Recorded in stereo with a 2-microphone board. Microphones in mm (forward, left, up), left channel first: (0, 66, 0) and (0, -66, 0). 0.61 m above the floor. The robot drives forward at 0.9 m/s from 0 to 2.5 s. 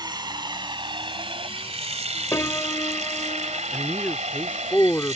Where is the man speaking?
10° left (ahead or behind).